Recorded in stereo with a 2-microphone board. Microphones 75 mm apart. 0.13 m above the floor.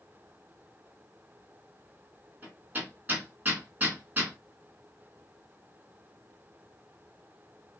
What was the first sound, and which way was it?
Hammering, 25° right (ahead or behind).